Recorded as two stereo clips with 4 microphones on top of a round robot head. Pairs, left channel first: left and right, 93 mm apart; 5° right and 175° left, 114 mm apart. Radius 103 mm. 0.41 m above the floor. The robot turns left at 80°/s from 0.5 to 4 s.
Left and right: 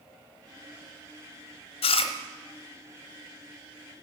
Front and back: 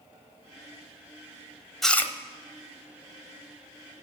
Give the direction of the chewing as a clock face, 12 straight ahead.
9 o'clock.